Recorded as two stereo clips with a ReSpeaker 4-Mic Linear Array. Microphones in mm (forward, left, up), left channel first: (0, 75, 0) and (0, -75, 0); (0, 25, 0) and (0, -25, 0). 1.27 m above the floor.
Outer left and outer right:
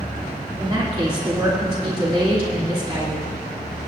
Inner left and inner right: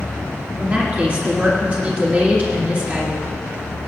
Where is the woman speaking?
35° right (ahead or behind), 2.5 m.